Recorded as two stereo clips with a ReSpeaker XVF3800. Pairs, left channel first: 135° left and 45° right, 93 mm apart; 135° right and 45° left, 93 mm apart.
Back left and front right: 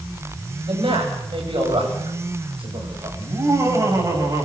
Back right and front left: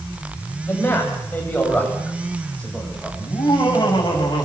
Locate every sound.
0.7 s a man speaking: 70° right, 9.5 m; by 3.1 s 55° right, 9 m
3.2 s laughter: 95° right, 9.5 m